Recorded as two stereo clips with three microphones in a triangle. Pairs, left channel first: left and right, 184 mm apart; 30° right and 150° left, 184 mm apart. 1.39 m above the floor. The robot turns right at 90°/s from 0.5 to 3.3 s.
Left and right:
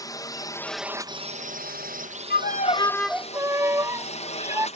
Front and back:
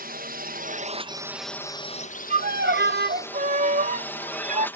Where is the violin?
105° left; by 4.7 s 165° right.